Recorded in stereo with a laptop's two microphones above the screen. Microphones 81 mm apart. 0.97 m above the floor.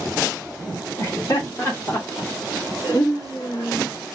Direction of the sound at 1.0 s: 40° left (ahead or behind).